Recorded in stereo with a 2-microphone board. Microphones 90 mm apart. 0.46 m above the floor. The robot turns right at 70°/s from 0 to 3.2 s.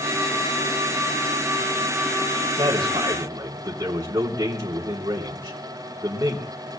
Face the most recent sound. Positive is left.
turn(degrees=-45)